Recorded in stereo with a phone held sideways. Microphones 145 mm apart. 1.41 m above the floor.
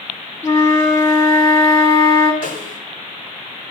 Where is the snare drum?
85° left, 3 m.